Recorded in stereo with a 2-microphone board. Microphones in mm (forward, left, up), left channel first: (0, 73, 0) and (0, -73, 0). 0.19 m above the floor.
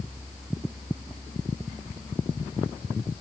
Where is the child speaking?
I don't hear a child speaking.